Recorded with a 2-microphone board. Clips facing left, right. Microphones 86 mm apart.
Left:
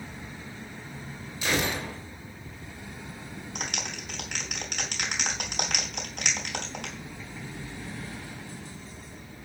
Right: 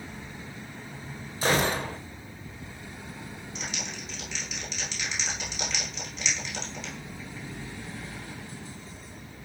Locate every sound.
1.4 s a gunshot: 40° right (ahead or behind), 3 m
3.5 s a clap: 60° left (ahead or behind), 4.5 m